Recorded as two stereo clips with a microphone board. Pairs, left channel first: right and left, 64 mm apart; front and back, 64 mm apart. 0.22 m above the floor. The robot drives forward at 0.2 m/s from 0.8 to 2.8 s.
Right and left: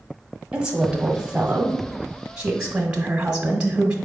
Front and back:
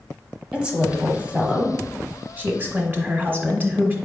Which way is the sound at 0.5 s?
130° left.